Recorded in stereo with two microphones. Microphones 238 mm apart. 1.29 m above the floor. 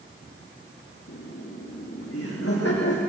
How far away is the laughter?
About 3.5 m.